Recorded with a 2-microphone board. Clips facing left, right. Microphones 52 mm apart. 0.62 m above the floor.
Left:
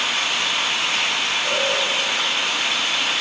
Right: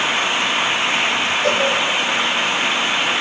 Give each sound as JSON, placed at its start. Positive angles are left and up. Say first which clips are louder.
{"t": 1.4, "sound": "a cowbell", "louder": "right 6 dB", "side_deg": -70, "distance_m": 9.0}